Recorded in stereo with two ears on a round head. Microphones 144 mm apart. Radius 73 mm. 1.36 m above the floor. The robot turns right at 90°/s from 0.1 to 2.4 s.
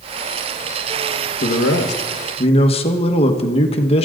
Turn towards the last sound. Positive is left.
turn(degrees=140)